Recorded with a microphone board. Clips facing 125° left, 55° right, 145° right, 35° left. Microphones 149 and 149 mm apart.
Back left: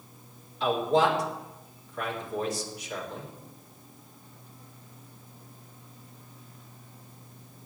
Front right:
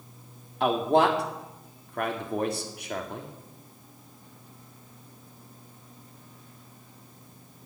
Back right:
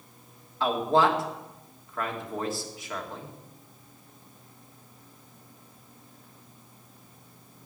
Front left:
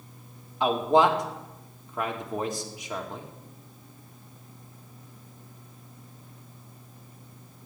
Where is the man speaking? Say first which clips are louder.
Front right 2 dB, front left 2 dB; 35° right, 2 m.